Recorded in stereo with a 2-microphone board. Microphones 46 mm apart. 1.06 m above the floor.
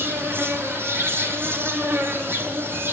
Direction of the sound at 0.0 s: 55° right (ahead or behind).